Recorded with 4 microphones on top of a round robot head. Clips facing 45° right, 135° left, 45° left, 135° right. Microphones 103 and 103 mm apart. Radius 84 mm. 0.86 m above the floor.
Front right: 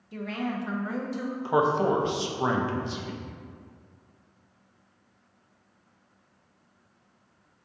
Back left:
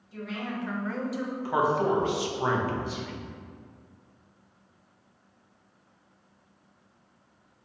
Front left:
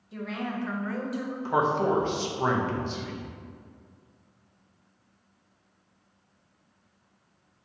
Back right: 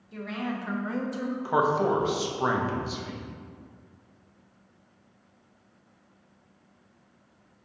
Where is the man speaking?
65° right, 0.6 m.